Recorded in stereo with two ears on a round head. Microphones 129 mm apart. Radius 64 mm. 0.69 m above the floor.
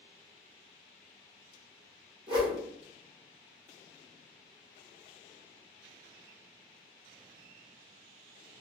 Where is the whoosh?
35° right (ahead or behind), 1.2 m.